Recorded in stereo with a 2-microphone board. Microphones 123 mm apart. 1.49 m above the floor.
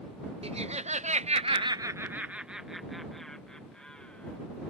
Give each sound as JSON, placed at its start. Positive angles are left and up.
{"t": 0.4, "sound": "laughter", "side_deg": -55}